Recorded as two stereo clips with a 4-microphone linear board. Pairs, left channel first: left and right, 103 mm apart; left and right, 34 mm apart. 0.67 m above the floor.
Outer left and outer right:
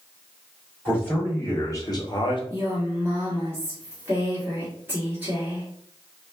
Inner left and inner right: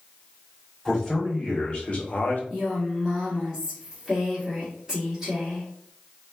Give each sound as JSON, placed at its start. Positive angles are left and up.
{"t": 0.8, "sound": "a man speaking", "side_deg": 20, "distance_m": 1.9}
{"t": 2.5, "sound": "a woman speaking", "side_deg": -20, "distance_m": 1.3}